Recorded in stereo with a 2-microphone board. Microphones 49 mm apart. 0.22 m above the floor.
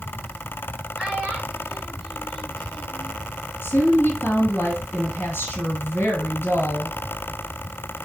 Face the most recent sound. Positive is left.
turn(degrees=50)  # may be behind; listen again after turning